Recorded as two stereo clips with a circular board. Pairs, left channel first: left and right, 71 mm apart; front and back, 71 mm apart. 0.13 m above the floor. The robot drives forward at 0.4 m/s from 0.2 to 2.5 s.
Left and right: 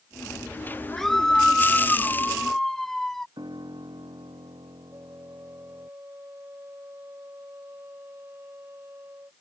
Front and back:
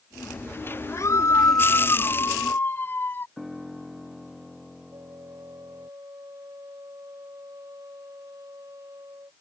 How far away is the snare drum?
I don't hear a snare drum.